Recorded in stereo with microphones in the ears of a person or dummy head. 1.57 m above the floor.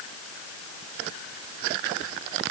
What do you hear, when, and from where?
Only background noise.